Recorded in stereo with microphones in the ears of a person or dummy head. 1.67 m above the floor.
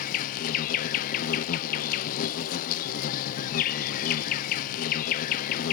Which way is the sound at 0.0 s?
55° left (ahead or behind).